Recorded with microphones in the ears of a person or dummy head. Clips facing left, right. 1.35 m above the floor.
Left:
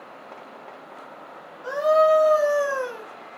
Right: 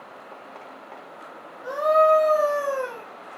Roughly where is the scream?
Centre.